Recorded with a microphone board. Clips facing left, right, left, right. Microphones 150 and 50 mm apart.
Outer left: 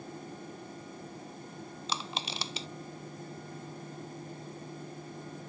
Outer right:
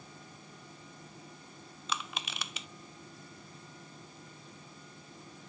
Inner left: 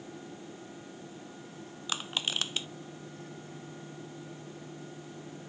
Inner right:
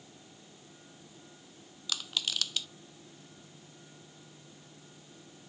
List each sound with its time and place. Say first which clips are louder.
1.9 s crushing: outer left 1 dB, inner left 2 dB; 30° left (ahead or behind)